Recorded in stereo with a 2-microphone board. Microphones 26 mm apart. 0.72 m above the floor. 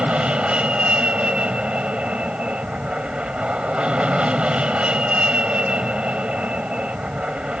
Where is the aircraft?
50° right (ahead or behind).